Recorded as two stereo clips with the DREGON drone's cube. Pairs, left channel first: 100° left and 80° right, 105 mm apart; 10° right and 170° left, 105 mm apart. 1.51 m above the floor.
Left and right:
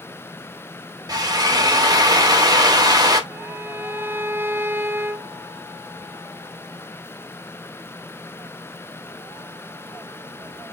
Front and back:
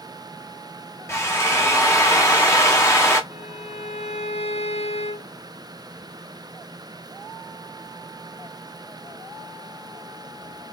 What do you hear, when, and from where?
1.1 s a drill: 55° right, 1.2 m
3.3 s a violin: 10° right, 0.7 m